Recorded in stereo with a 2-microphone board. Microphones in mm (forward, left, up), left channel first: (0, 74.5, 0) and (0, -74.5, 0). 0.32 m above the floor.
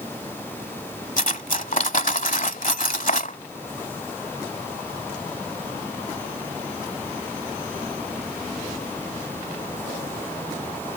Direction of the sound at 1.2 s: 60° left (ahead or behind).